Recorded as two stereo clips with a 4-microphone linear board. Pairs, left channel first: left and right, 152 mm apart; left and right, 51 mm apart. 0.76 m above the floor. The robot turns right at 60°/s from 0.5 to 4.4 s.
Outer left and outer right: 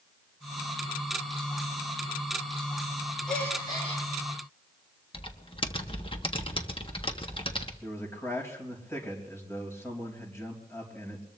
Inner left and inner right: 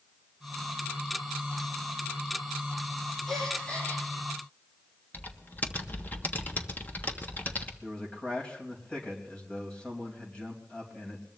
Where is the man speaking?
15° left (ahead or behind), 4 m.